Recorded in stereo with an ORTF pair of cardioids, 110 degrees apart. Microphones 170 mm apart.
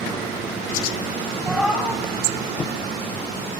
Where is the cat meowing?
5° right, 4.5 m.